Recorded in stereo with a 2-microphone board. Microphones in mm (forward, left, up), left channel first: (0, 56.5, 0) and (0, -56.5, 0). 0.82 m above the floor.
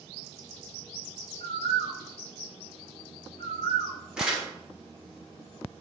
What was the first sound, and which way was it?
A bird, 65° left (ahead or behind).